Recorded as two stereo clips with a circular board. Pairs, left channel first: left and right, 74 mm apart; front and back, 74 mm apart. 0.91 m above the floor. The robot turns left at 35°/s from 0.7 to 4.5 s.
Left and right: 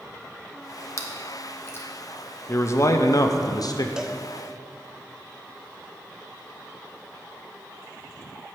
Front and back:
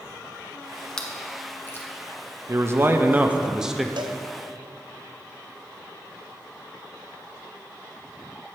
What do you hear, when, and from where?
1.0 s chewing: 75° left, 0.9 m; by 1.9 s 45° left, 0.9 m
2.5 s a man speaking: 140° left, 0.6 m; by 3.9 s 90° left, 0.6 m
4.0 s a cowbell: 170° right, 0.5 m; by 4.2 s straight behind, 0.5 m